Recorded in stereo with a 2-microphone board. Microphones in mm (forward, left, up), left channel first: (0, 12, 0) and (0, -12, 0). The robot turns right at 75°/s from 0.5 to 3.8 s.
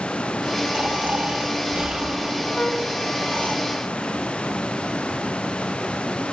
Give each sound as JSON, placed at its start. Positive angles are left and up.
{"t": 0.7, "sound": "snoring", "azimuth_deg": -125, "distance_m": 2.0}
{"t": 2.5, "sound": "a flute", "side_deg": 70, "distance_m": 2.5}